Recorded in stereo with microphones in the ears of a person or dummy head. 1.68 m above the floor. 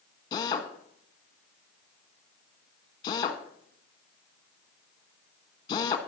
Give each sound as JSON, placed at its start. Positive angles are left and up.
{"t": 0.3, "sound": "a drill", "side_deg": 25, "distance_m": 1.4}